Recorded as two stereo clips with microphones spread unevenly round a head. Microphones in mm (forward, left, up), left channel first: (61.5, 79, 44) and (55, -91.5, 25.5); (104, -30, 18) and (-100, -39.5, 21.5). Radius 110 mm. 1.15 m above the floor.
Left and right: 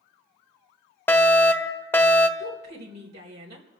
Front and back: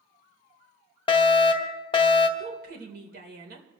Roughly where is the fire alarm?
Ahead.